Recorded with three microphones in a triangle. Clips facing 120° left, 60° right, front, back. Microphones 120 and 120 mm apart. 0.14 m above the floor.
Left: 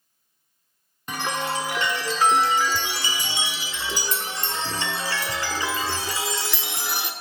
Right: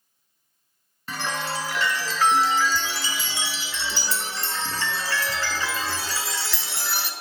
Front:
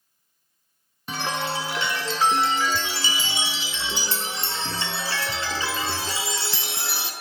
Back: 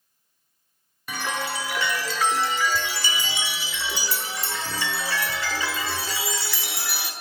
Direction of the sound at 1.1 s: 55° left.